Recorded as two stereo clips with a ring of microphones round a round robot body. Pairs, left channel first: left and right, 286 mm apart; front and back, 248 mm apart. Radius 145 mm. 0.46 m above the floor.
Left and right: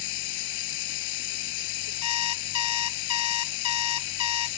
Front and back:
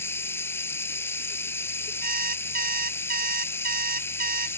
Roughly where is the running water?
Left.